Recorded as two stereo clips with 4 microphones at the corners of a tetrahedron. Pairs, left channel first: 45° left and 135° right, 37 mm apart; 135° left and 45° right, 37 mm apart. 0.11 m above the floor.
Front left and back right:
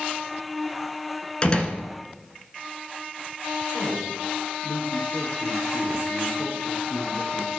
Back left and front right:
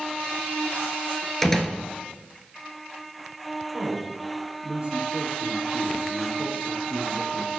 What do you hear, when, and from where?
1.4 s a door slam: 65° left, 1.2 m
3.7 s a man speaking: 30° left, 2.5 m